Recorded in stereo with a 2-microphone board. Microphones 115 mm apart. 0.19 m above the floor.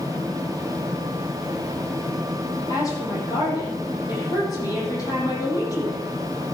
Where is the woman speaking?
35° left (ahead or behind), 8.5 m.